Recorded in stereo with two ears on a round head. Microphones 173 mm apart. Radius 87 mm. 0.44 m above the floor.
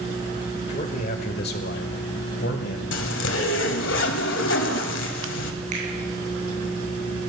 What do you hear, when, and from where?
0.7 s a man speaking: 40° left (ahead or behind), 1.5 m; by 2.8 s 60° left (ahead or behind), 2.5 m
2.9 s a zipper: 65° left (ahead or behind), 1.9 m
5.7 s a finger snap: 40° right (ahead or behind), 7 m